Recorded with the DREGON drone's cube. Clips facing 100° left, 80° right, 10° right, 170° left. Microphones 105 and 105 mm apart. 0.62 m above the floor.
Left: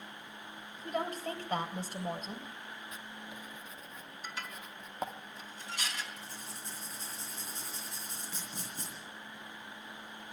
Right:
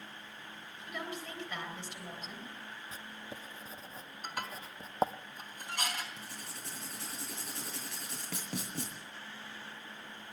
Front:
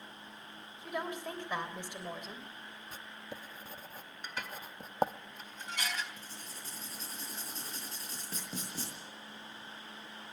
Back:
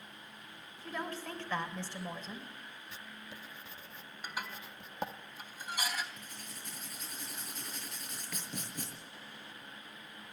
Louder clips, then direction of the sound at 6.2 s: Even, front 1 dB; 70° right.